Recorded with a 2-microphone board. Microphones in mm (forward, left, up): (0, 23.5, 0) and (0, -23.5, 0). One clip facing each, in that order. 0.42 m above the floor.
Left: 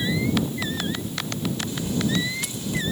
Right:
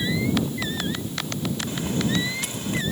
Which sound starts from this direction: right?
A bird, at 1.7 s.